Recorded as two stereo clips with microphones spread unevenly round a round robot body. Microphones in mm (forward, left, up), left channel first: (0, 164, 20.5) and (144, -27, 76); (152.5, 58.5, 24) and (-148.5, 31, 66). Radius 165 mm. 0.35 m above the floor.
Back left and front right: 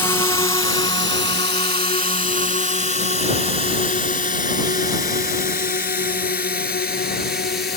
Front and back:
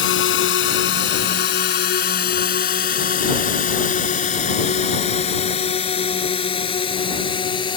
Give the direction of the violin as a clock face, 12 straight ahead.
No violin in this recording.